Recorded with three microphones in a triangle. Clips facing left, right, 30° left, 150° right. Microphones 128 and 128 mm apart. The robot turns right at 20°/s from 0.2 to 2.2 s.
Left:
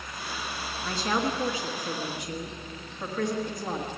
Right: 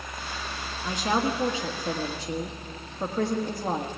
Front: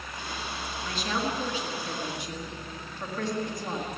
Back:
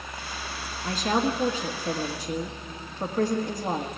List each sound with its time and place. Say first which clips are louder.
0.8 s a woman speaking: right 2 dB, back 6 dB; 155° right, 1.4 m; by 3.9 s 130° right, 1.4 m